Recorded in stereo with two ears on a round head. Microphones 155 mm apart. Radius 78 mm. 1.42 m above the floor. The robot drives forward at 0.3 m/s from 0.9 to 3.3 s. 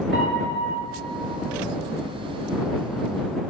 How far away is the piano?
About 1.8 m.